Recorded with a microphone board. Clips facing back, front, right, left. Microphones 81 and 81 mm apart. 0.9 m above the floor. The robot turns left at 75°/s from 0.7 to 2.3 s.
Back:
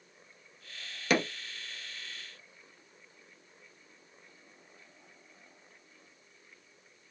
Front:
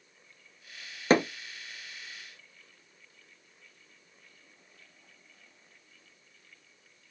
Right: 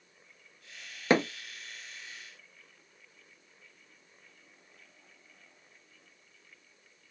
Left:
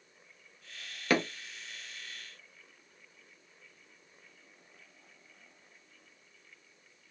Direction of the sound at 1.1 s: 35° right.